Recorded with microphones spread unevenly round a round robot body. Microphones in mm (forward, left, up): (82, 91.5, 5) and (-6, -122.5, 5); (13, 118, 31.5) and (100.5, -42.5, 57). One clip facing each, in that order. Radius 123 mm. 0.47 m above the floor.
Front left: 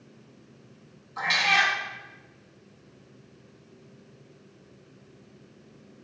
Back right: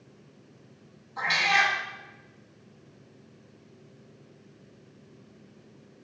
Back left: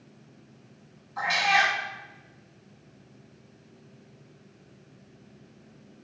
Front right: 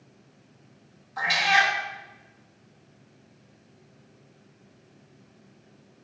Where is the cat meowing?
10° right, 1.1 m.